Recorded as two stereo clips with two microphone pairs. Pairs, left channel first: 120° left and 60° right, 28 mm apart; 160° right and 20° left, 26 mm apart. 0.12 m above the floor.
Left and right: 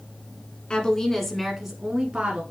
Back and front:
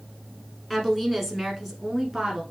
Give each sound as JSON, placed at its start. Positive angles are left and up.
{"t": 0.7, "sound": "a woman speaking", "azimuth_deg": 130, "distance_m": 1.2}